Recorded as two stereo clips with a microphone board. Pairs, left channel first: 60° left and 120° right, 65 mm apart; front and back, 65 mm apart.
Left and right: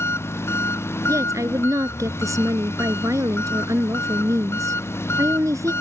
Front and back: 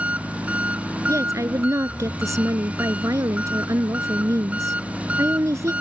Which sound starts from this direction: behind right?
A woman speaking, at 1.1 s.